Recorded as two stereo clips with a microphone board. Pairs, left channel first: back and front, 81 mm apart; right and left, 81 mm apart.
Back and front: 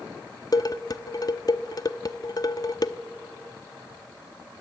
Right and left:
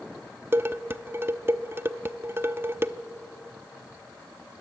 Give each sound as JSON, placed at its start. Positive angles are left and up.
{"t": 0.5, "sound": "dishes clattering", "azimuth_deg": 145, "distance_m": 0.8}